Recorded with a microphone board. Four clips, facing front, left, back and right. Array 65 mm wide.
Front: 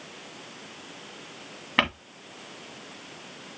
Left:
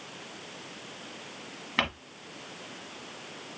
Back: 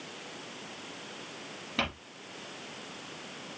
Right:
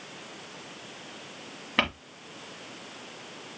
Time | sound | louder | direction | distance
1.8 | crumpling | right 2 dB, front 8 dB | straight ahead | 2.5 m